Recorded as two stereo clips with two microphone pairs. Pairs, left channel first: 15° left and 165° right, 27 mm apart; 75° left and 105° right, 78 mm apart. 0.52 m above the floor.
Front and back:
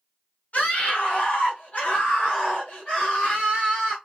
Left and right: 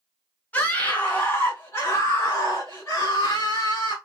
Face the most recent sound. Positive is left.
turn(degrees=70)